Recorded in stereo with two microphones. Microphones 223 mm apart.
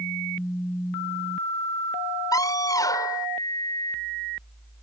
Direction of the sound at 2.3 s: 15° left (ahead or behind).